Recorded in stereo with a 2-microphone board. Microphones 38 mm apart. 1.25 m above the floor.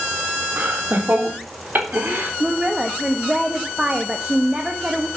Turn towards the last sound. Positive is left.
turn(degrees=-25)  # may be behind; listen again after turning